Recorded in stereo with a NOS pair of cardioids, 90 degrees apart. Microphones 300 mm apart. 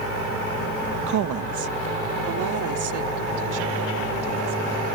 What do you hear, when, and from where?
1.1 s a woman speaking: 65° right